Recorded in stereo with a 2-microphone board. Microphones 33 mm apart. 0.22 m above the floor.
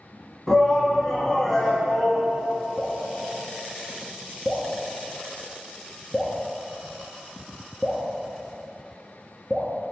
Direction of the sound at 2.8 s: 20° right (ahead or behind).